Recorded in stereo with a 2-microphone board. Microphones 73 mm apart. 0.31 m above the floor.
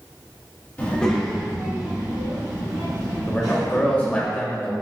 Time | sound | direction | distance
0.8 | a child speaking | 25° left (ahead or behind) | 1.2 m
3.3 | a man speaking | 20° left (ahead or behind) | 0.9 m